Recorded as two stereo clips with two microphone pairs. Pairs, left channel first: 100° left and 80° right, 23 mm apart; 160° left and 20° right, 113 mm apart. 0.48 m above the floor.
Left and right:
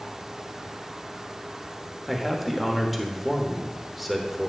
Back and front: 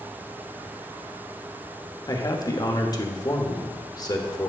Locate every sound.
2.1 s a man speaking: 165° right, 1.2 m